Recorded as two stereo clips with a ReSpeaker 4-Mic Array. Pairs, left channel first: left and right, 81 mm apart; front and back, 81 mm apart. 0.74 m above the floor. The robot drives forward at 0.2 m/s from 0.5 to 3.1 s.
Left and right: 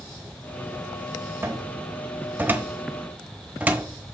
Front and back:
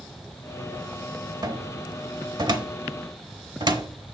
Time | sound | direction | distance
1.4 | a cupboard door | 145° right | 0.8 m